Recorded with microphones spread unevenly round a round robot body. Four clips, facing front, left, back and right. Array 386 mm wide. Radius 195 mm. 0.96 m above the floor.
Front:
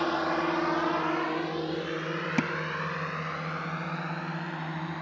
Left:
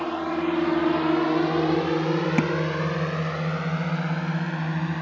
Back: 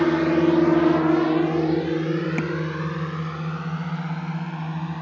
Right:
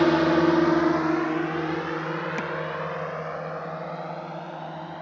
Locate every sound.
0.0 s a drone: 145° right; by 5.0 s 130° left
2.4 s tapping: 70° left